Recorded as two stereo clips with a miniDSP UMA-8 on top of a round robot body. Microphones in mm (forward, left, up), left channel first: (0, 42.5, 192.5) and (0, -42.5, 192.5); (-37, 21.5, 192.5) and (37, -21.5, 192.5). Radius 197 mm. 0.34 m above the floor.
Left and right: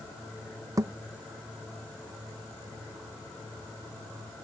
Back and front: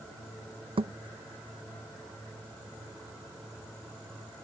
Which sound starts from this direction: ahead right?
A thud, at 0.8 s.